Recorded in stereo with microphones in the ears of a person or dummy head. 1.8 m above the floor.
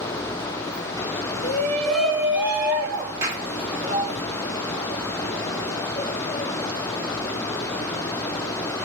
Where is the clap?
15° right (ahead or behind), 2.5 m.